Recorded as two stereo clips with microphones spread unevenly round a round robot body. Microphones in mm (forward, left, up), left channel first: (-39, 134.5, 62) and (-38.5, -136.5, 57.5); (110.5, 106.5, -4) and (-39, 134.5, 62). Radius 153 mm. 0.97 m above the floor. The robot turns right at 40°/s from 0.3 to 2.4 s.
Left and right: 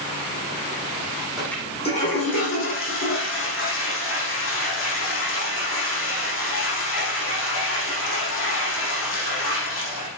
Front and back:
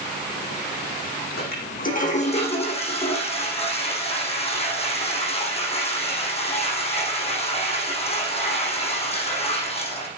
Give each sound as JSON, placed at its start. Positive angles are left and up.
{"t": 1.4, "sound": "a toilet flushing", "azimuth_deg": 0, "distance_m": 9.0}